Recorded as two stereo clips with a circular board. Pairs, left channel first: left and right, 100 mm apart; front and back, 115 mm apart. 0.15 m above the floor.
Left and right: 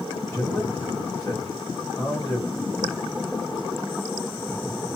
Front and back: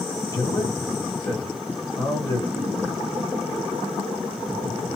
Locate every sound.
0.3 s a man speaking: 25° left, 1.7 m